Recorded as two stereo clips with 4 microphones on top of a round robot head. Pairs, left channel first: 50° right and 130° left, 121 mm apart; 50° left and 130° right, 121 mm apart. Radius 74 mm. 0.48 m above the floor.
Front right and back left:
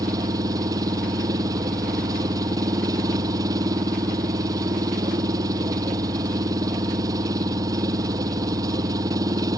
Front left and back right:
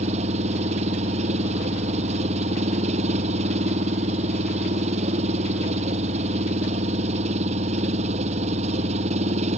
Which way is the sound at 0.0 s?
165° right.